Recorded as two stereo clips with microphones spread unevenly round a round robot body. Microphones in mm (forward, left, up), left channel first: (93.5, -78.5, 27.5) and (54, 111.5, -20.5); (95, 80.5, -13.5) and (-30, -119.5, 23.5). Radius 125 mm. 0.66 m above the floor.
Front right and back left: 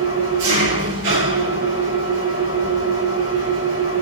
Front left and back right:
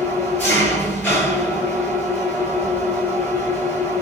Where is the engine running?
140° left, 6 m.